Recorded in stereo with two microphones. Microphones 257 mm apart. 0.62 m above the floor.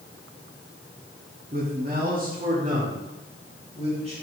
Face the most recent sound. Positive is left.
turn(degrees=-25)  # may be behind; listen again after turning